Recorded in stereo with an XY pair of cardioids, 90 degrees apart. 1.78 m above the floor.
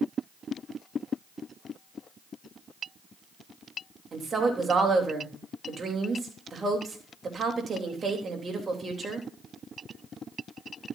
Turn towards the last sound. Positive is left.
turn(degrees=-45)